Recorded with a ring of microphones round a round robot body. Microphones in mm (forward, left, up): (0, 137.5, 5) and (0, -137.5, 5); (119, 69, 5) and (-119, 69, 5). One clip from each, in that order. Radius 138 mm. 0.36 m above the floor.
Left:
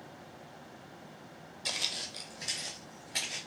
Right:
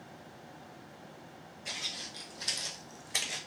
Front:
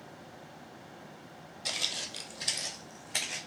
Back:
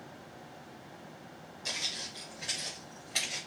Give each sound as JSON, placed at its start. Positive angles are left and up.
{"t": 1.6, "sound": "footsteps", "azimuth_deg": 65, "distance_m": 0.6}